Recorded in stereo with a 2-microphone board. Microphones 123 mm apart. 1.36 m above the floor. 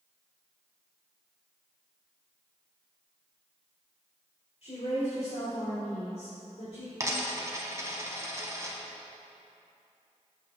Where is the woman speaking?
60° left (ahead or behind), 3.5 m.